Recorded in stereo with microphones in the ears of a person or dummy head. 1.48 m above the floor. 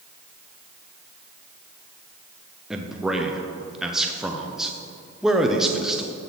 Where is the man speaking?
Centre (ahead or behind), 0.6 m.